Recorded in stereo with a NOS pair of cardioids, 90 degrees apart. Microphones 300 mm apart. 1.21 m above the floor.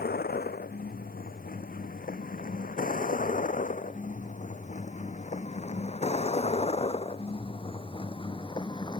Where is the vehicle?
30° left; by 9.0 s 15° left.